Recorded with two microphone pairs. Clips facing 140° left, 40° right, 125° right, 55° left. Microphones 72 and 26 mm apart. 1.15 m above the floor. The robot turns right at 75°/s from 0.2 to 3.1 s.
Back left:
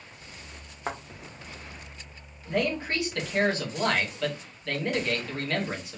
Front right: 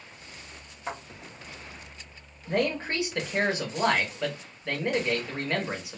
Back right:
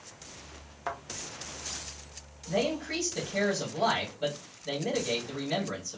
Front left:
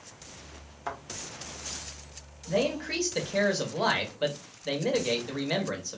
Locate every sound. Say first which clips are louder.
0.9 s a thud: back left 2 dB, back right 1 dB; 155° left, 0.9 m; by 1.0 s 165° left, 0.9 m
2.5 s a man speaking: front right 1 dB, front left 2 dB; 20° right, 1.1 m; by 6.0 s 25° left, 1.1 m